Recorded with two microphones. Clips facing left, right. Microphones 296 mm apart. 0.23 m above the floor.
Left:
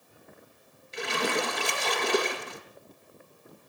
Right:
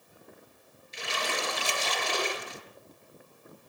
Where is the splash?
70° left (ahead or behind), 3.5 m.